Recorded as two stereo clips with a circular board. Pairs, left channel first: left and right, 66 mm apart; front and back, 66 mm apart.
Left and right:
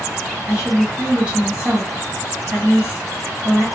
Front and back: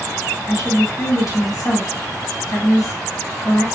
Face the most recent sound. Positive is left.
turn(degrees=-15)